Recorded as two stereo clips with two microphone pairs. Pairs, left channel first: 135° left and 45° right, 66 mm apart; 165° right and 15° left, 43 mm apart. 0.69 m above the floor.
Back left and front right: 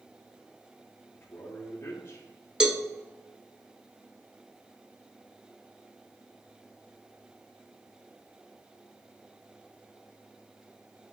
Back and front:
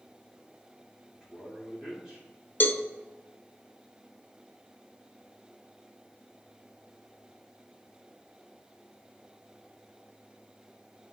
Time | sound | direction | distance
1.1 | a man speaking | 90° left | 2 m
2.6 | a cowbell | 125° right | 0.7 m